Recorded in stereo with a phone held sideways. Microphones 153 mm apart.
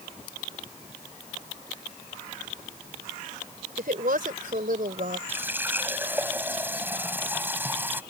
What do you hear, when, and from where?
3.8 s a woman speaking: 65° right (ahead or behind); by 5.2 s 60° right (ahead or behind)
5.3 s a running tap: 15° right (ahead or behind)